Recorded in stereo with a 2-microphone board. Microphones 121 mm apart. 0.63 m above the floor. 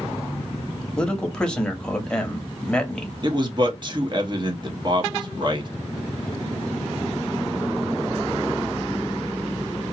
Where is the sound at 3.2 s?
40° right (ahead or behind), 0.9 m.